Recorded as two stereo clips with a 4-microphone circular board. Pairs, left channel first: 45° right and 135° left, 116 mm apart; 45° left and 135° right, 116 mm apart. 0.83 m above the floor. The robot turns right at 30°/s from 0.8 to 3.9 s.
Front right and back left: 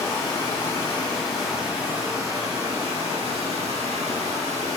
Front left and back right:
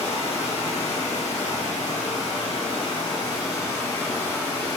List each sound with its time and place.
0.0 s running water: 25° left, 0.8 m; by 4.8 s 120° left, 0.8 m